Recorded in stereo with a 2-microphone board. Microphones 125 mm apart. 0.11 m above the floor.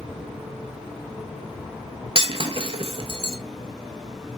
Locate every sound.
2.1 s breaking glass: 50° right (ahead or behind), 0.7 m